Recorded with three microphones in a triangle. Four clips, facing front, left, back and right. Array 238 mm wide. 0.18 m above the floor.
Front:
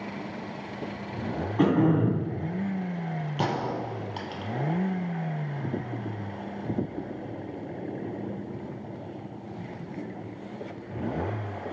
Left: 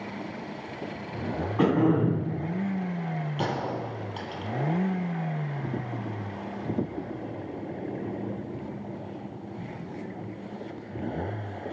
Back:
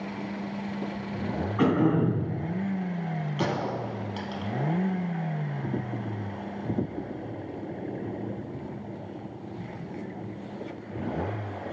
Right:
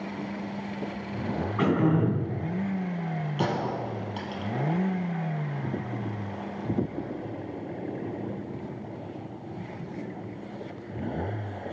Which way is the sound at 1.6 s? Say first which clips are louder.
Left 2 dB, front 1 dB; 55° left.